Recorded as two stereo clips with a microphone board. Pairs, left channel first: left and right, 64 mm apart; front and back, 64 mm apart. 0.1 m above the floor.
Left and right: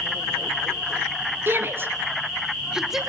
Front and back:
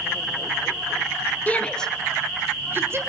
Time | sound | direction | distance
1.5 | a shout | 55° right | 1.7 m